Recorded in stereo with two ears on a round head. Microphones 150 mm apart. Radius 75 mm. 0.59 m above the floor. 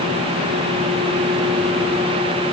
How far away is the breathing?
No breathing in this recording.